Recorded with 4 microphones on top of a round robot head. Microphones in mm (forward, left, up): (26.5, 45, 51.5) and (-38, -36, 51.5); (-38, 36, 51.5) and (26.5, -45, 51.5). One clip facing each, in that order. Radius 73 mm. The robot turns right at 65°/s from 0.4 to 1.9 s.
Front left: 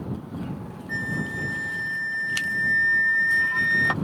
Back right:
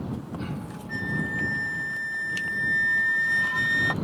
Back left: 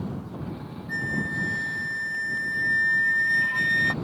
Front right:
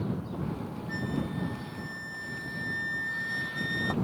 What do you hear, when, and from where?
0.9 s a flute: 85° left; by 3.9 s 155° left